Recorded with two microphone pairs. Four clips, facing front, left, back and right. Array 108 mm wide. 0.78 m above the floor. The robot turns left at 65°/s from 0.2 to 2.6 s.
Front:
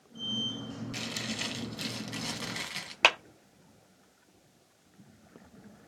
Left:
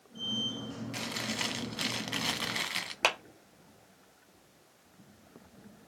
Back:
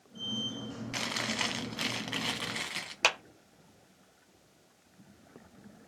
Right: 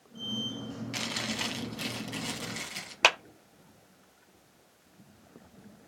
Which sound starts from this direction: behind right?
Chewing, at 0.9 s.